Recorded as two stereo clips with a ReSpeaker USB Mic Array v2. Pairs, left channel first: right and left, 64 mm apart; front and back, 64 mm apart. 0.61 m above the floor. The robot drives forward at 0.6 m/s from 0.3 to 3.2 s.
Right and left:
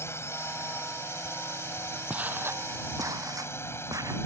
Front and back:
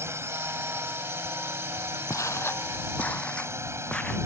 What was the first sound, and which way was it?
A drone, 135° right.